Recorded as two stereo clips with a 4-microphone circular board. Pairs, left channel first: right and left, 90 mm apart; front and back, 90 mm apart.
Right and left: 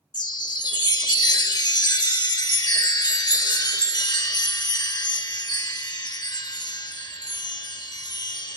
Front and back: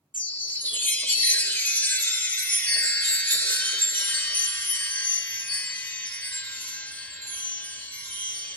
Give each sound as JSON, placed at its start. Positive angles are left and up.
{"t": 0.1, "sound": "a chime", "azimuth_deg": -65, "distance_m": 0.6}